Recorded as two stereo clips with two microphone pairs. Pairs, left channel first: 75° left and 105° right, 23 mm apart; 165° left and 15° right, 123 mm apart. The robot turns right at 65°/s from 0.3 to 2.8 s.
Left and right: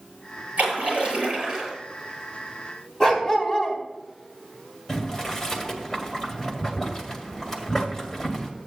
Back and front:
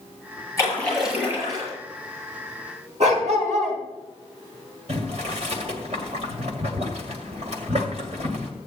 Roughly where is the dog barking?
Ahead.